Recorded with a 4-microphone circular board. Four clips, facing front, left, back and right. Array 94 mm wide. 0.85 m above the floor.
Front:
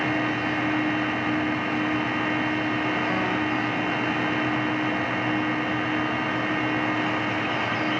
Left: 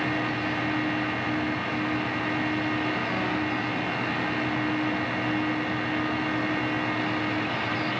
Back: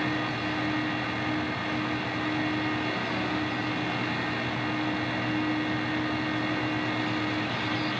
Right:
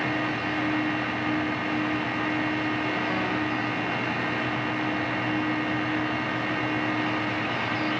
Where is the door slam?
No door slam in this recording.